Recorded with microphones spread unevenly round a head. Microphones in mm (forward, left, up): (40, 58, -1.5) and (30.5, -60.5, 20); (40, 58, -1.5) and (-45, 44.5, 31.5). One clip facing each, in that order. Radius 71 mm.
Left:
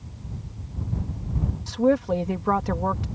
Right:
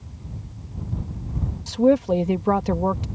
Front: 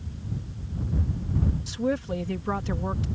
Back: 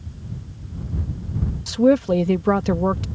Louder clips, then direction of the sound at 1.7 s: Right 3 dB, back 14 dB; 165° right.